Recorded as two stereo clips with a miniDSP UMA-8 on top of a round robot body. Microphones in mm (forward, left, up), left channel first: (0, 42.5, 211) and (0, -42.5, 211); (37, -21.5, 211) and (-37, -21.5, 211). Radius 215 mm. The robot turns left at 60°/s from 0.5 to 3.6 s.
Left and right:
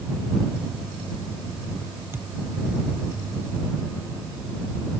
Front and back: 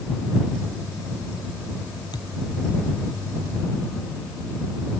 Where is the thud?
25° right; by 2.3 s 35° right.